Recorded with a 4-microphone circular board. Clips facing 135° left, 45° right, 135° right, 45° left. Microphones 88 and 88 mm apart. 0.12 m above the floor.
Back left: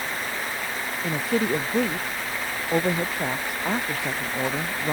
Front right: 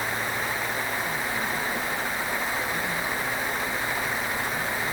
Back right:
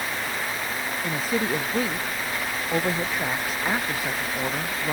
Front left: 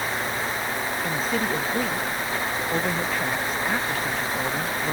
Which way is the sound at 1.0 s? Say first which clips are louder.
Back left 5 dB, back right 1 dB; 145° left.